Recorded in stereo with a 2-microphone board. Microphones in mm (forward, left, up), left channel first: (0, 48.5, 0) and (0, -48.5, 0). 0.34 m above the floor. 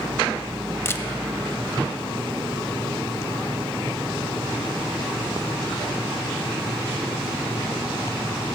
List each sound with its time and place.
0.8 s a camera shutter: 25° left (ahead or behind), 0.5 m